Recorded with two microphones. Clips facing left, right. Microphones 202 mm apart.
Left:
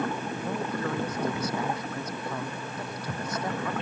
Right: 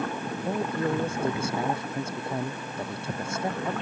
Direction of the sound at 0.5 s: 25° right (ahead or behind).